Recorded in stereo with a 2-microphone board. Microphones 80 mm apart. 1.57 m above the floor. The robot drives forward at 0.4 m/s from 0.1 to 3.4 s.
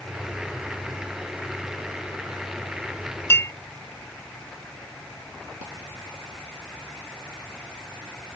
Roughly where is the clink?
Left.